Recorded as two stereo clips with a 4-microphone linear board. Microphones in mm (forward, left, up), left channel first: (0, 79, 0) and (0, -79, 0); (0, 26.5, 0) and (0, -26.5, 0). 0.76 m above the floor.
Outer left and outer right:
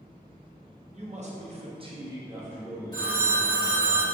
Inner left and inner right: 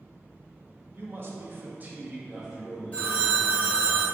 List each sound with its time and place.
0.9 s a man speaking: 40° right (ahead or behind), 0.7 m; by 3.9 s 5° left (ahead or behind), 1.5 m
2.9 s a phone ringing: 25° left (ahead or behind), 1.0 m